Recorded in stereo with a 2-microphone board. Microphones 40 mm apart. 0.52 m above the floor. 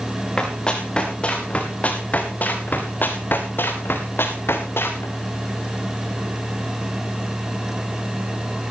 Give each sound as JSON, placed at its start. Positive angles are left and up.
{"t": 0.4, "sound": "running footsteps", "side_deg": 20, "distance_m": 5.5}